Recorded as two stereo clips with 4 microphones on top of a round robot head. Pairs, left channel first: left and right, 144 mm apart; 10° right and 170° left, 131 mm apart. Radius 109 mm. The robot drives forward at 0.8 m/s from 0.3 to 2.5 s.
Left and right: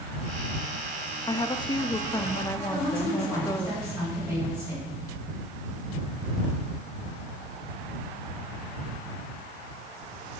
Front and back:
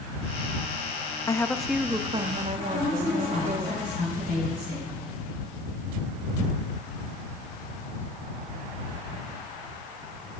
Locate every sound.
1.3 s a woman speaking: 45° left, 0.8 m; by 3.7 s 155° left, 1.0 m
2.7 s a woman speaking: 165° right, 4 m